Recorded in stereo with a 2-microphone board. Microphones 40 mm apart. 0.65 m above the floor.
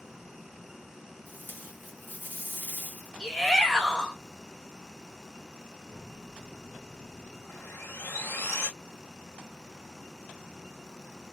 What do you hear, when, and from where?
1.3 s tape being pulled: 50° left (ahead or behind), 1.6 m
3.2 s a shout: 10° left (ahead or behind), 1.3 m
5.9 s a microwave: 40° left (ahead or behind), 1.9 m
7.5 s sawing: 85° left, 0.9 m